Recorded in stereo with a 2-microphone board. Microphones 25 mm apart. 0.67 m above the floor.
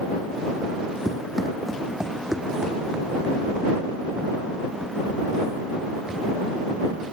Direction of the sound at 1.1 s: Centre (ahead or behind).